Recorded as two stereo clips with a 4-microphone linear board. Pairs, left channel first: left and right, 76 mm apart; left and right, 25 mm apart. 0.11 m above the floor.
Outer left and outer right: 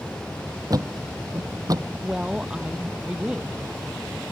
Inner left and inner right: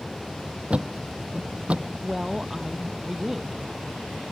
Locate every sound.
0.7 s a thud: 50° right (ahead or behind)
2.0 s a woman speaking: 10° right (ahead or behind)